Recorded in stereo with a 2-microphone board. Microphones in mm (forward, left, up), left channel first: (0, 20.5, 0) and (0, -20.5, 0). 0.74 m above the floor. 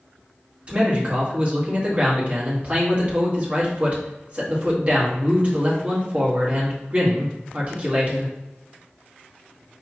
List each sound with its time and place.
0.7 s a man speaking: 35° right (ahead or behind), 1.5 m